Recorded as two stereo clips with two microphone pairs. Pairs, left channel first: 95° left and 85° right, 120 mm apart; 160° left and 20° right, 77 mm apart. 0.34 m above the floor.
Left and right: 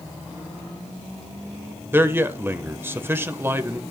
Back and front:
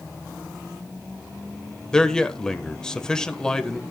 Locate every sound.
1.9 s a man speaking: 130° right, 1.1 m